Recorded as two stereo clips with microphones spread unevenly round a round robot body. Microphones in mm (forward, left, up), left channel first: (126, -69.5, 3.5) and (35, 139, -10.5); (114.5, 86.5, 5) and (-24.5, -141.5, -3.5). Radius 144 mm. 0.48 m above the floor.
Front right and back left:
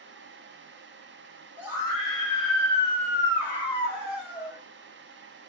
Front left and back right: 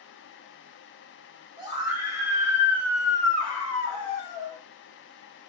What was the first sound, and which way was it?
A scream, 175° right.